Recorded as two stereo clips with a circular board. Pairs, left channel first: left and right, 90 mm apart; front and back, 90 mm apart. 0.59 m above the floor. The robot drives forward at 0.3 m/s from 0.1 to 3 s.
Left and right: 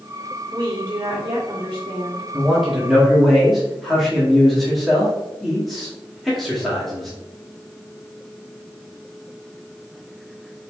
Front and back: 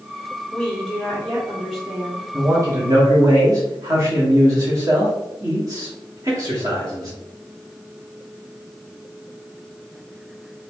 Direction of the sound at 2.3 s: Straight behind.